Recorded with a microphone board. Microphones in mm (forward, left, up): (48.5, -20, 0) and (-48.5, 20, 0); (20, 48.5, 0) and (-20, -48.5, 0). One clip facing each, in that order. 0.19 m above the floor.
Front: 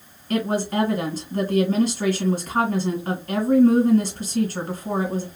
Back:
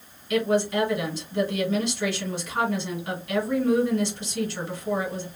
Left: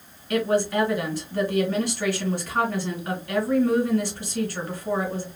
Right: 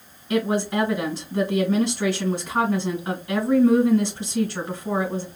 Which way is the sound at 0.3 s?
50° right.